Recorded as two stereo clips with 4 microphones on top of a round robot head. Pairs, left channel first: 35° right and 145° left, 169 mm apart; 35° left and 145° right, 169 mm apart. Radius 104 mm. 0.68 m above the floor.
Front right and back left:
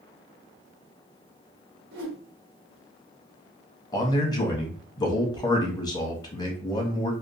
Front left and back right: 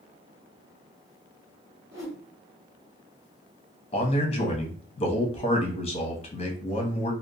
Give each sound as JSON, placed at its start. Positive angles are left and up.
{"t": 1.9, "sound": "a whoosh", "azimuth_deg": 145, "distance_m": 1.1}
{"t": 3.9, "sound": "a man speaking", "azimuth_deg": 15, "distance_m": 0.8}